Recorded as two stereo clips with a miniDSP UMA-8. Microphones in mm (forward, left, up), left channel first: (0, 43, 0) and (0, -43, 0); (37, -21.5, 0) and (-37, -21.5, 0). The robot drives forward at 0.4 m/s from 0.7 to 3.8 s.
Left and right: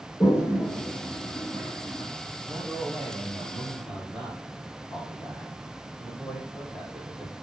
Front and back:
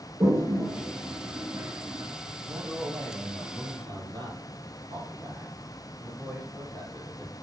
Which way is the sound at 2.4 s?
175° right.